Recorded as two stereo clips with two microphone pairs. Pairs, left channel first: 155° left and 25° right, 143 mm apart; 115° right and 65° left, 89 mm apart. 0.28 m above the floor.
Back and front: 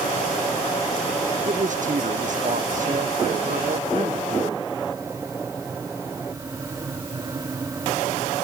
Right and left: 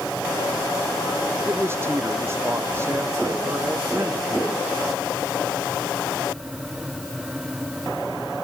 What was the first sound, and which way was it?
A man speaking, straight ahead.